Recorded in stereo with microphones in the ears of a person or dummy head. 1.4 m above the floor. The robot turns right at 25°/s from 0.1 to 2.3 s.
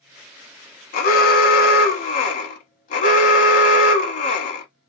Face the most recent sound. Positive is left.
turn(degrees=120)